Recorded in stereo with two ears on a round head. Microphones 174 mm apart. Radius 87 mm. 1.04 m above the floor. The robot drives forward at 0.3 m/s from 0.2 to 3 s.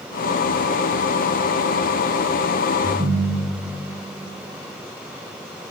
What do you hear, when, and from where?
2.8 s a ringtone: 50° right (ahead or behind), 6.5 m